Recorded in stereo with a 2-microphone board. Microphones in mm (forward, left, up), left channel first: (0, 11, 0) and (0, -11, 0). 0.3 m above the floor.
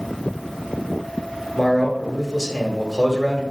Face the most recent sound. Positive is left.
turn(degrees=-10)  # may be behind; listen again after turning